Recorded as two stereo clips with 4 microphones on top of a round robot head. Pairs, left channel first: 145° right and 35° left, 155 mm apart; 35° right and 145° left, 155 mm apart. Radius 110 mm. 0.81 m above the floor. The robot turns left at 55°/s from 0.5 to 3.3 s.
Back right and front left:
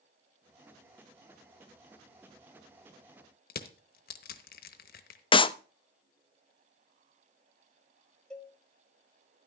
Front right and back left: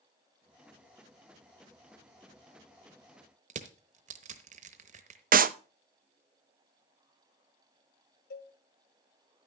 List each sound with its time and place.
3.5 s crushing: 175° right, 0.9 m
5.3 s a clap: 160° left, 0.6 m
8.3 s a cowbell: 60° right, 1.3 m